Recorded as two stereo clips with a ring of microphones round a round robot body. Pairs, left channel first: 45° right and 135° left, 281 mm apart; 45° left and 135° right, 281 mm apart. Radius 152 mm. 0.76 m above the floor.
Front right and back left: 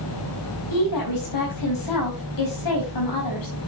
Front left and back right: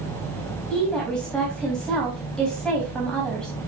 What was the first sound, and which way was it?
A woman speaking, 40° right.